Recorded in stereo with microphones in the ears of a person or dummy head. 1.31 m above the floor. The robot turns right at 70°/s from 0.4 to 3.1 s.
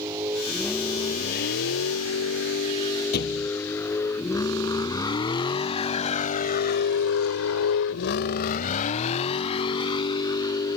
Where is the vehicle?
15° right (ahead or behind); by 10.8 s 20° left (ahead or behind).